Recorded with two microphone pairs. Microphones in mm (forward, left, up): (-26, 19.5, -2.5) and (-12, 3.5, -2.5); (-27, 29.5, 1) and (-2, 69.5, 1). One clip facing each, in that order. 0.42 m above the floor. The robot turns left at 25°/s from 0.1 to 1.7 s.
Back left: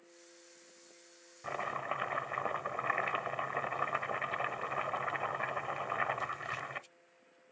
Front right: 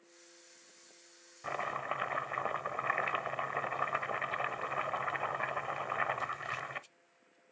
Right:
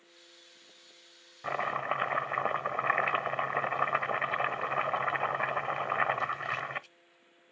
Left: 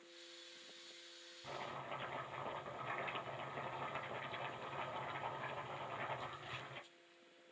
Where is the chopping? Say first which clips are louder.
Front right 1 dB, right 15 dB; 130° right, 0.6 m; by 6.9 s 140° right, 0.6 m.